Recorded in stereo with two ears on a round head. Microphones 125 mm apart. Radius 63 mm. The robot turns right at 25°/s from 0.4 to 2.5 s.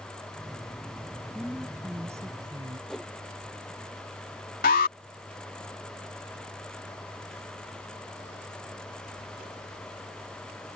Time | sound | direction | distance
1.4 | a woman speaking | 5° right (ahead or behind) | ?
2.9 | a whoosh | centre (ahead or behind) | ?
4.6 | an alarm | 65° left (ahead or behind) | ?